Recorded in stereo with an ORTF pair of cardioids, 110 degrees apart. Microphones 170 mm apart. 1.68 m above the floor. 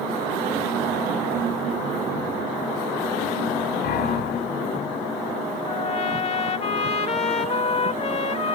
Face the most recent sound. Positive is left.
turn(degrees=40)